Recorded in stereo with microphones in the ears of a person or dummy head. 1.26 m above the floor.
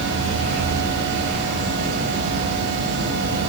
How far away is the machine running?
About 6 m.